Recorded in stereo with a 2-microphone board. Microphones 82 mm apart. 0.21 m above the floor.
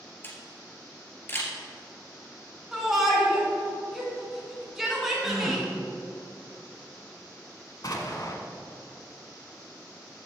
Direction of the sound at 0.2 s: 30° left (ahead or behind).